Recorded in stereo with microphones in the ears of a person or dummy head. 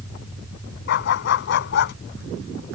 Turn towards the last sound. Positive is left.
turn(degrees=65)  # may be behind; listen again after turning